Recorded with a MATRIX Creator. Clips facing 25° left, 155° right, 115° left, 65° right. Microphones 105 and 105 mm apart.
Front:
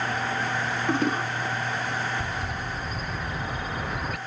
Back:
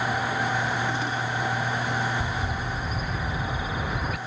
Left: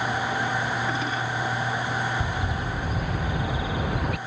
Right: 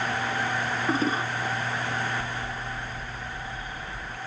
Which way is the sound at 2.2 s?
115° left.